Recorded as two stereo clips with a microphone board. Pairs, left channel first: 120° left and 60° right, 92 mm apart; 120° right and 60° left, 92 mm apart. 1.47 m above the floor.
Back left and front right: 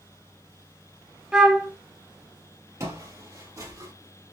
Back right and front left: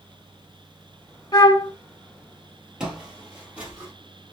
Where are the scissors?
No scissors in this recording.